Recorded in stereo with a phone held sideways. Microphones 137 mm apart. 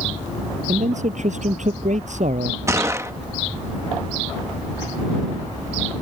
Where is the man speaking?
65° right (ahead or behind).